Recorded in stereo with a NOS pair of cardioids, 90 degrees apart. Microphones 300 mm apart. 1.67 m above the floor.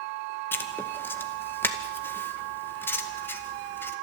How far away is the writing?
About 2 m.